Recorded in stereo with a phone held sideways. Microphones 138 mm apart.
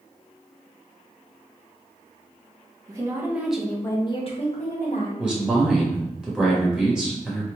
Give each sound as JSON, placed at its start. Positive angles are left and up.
{"t": 2.9, "sound": "a woman speaking", "side_deg": -25, "distance_m": 1.2}
{"t": 5.2, "sound": "a man speaking", "side_deg": -5, "distance_m": 1.5}